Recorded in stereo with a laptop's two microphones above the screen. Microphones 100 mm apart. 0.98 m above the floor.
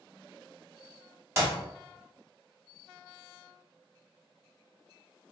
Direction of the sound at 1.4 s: 30° right (ahead or behind).